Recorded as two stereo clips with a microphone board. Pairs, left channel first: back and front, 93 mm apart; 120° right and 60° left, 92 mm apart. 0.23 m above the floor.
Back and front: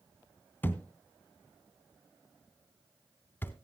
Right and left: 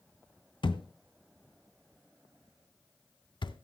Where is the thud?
115° right, 0.6 m.